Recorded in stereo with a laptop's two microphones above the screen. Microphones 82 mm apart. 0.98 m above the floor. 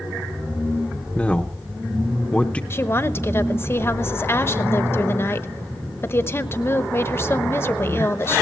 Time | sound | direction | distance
1.1 | a man speaking | 15° left (ahead or behind) | 0.8 m
2.7 | a woman speaking | 30° left (ahead or behind) | 0.9 m